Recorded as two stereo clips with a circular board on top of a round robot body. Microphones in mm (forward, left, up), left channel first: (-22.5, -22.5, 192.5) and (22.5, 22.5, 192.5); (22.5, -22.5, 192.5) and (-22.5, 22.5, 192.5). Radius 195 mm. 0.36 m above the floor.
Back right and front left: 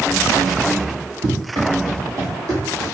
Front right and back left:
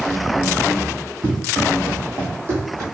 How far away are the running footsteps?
About 1.9 m.